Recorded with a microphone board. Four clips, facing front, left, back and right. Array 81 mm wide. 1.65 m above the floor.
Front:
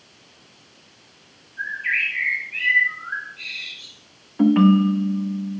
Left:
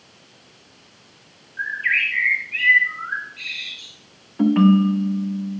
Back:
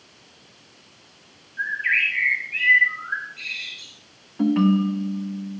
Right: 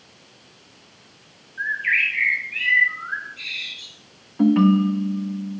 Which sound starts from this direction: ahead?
A ringtone, at 4.4 s.